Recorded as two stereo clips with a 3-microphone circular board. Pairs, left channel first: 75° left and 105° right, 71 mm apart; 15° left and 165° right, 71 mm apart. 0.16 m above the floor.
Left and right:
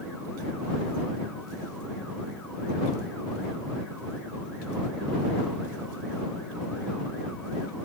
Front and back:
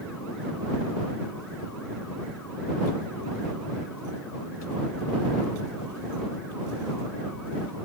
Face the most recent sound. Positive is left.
No sound to turn to.